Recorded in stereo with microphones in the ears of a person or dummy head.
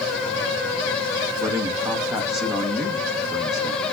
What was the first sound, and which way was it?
A man speaking, 15° right (ahead or behind).